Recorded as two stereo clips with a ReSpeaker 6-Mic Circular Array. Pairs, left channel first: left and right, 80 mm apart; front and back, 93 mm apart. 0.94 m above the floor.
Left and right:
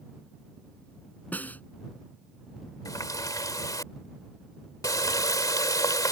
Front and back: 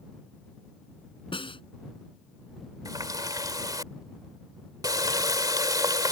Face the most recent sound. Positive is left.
turn(degrees=130)